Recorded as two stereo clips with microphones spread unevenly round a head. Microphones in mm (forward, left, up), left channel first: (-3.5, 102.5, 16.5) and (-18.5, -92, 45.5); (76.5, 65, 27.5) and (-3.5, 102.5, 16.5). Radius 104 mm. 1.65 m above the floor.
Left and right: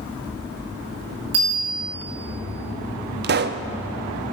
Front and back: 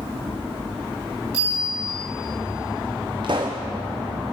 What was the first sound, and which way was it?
A bicycle bell, 110° right.